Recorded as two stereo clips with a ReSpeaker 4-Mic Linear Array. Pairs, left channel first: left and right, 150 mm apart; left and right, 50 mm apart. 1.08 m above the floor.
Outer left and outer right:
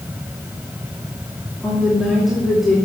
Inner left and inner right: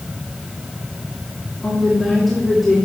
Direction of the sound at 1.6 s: Centre (ahead or behind).